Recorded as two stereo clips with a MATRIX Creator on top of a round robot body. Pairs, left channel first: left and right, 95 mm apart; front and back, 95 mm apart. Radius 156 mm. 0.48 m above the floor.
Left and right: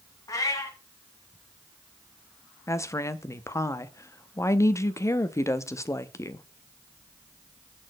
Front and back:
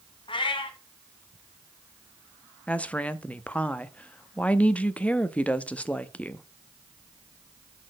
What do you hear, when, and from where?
0.3 s a cat meowing: 35° left, 1.1 m
2.7 s a woman speaking: 65° left, 0.7 m